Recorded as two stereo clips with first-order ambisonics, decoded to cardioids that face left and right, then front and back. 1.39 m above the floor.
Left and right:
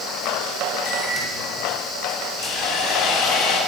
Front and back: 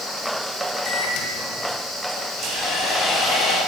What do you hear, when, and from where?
0.9 s a microwave: 10° left, 6.5 m
2.4 s sawing: 60° left, 9 m